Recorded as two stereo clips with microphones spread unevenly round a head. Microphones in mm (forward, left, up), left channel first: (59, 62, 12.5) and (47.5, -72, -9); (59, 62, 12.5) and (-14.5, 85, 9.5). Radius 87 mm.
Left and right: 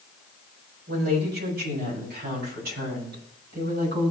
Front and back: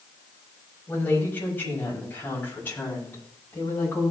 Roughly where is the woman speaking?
Right.